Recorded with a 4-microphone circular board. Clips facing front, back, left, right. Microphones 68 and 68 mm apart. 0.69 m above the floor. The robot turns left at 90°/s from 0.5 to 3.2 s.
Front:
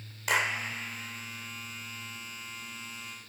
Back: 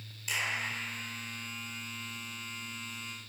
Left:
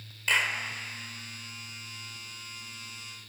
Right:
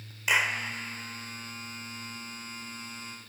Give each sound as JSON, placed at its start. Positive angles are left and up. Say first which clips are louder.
{"t": 0.3, "sound": "a clap", "louder": "front 6 dB, right 1 dB", "azimuth_deg": -15, "distance_m": 1.7}